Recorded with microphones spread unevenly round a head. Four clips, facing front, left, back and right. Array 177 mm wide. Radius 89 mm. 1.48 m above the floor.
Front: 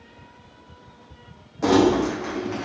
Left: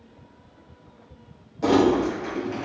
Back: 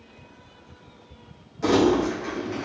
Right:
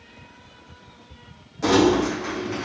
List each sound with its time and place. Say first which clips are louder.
1.6 s crumpling: right 1 dB, front 2 dB; 10° left, 0.7 m